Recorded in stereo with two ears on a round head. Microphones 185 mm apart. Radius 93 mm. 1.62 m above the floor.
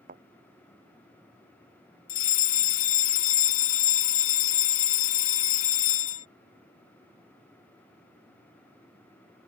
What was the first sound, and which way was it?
A thud, 40° right (ahead or behind).